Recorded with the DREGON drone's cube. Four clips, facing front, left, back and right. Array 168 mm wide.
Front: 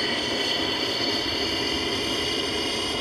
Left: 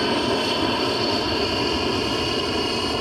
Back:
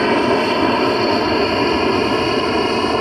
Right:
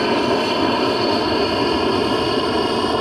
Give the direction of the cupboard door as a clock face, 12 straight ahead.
I don't hear a cupboard door.